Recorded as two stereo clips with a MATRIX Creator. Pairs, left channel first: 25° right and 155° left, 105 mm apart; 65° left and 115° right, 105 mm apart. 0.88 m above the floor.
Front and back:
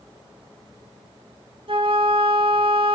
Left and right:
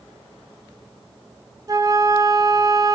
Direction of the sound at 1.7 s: 170° right.